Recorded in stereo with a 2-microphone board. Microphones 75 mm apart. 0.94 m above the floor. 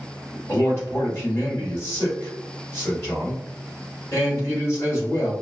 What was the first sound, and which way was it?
A man speaking, 40° left (ahead or behind).